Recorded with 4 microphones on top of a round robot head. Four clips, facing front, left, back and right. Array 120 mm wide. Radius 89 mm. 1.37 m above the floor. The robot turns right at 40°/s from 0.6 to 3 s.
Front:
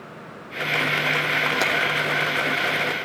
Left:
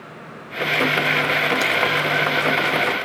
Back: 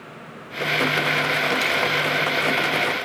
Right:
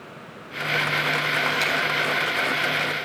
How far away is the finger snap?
About 2.5 m.